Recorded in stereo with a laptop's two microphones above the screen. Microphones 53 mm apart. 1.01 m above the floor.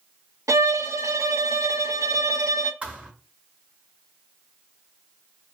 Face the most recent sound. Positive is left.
turn(degrees=-25)  # may be behind; listen again after turning